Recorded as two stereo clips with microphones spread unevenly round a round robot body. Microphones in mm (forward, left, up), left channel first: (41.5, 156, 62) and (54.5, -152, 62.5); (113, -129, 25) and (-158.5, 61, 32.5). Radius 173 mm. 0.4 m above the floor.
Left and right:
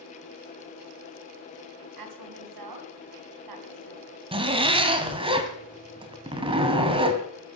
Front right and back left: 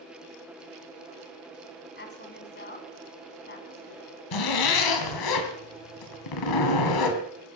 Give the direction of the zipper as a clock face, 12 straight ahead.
12 o'clock.